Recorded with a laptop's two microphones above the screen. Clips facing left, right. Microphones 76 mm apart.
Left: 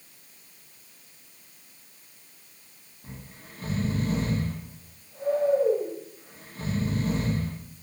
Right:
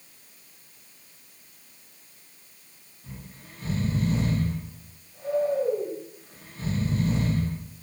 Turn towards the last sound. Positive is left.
turn(degrees=45)  # may be behind; listen again after turning